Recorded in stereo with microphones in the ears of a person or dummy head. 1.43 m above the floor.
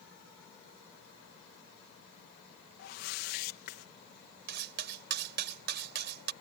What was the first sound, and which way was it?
A whoosh, 65° left (ahead or behind).